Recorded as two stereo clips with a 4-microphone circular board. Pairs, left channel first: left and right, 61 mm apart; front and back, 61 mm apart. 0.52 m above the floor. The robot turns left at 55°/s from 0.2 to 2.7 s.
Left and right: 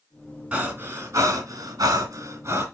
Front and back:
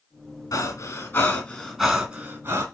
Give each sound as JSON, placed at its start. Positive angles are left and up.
{"t": 0.5, "sound": "breathing", "azimuth_deg": -15, "distance_m": 3.0}